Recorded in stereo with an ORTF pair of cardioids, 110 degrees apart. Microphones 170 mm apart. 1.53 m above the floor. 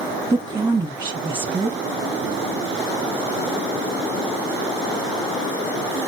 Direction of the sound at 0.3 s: 20° right.